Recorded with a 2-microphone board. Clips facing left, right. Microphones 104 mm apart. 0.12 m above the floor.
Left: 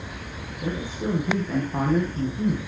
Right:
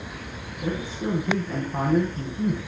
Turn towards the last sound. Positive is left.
turn(degrees=5)  # may be behind; listen again after turning